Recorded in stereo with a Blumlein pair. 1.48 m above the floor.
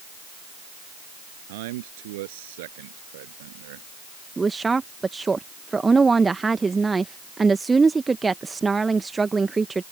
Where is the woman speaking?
10° right.